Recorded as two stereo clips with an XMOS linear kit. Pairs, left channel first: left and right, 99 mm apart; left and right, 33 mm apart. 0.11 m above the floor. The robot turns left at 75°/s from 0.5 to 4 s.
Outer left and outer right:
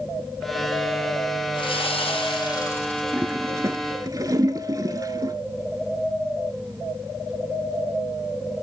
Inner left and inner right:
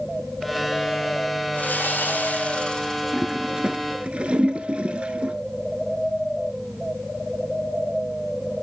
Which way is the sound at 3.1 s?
10° right (ahead or behind).